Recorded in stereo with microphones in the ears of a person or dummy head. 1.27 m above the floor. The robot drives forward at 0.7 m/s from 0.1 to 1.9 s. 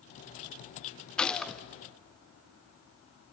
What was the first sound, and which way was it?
A gunshot, 10° left (ahead or behind).